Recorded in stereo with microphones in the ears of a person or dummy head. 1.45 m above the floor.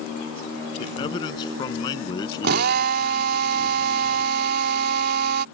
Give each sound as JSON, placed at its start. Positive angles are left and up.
{"t": 0.8, "sound": "a man speaking", "side_deg": 25}
{"t": 2.4, "sound": "a drill", "side_deg": -55}